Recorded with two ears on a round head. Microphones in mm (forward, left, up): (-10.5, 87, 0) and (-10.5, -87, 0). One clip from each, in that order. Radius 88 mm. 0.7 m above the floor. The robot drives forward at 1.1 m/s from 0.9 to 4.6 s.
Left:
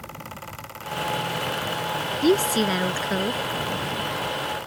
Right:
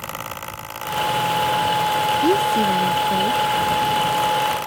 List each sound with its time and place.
2.2 s a woman speaking: 60° left (ahead or behind); by 3.4 s 55° left (ahead or behind)